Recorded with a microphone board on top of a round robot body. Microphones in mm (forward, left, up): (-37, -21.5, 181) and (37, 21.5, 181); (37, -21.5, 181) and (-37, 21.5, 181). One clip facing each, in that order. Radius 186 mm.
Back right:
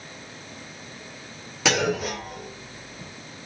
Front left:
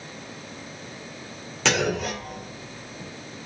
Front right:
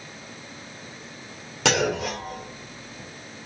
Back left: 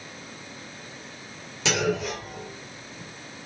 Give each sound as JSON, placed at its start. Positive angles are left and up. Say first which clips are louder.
{"t": 1.6, "sound": "a clunk", "louder": "back right 1 dB, front right 2 dB", "azimuth_deg": -65, "distance_m": 1.7}